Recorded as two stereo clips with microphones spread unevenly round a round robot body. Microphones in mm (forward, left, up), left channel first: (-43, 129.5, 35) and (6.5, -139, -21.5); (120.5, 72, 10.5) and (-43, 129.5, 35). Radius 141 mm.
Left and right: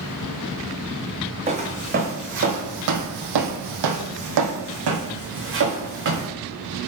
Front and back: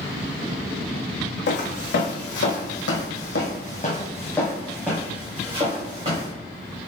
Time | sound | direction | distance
1.5 | footsteps | 10° right | 1.2 m